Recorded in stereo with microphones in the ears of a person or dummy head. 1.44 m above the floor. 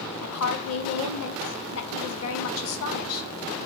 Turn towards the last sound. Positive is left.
turn(degrees=85)